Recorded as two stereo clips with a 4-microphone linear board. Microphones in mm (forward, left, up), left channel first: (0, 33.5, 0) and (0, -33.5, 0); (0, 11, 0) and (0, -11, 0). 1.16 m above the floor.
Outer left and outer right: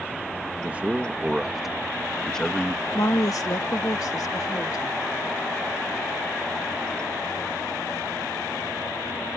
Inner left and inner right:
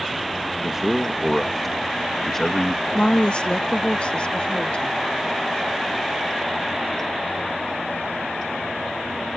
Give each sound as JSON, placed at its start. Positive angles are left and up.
{"t": 0.6, "sound": "a man speaking", "side_deg": -25}
{"t": 3.0, "sound": "a woman speaking", "side_deg": 60}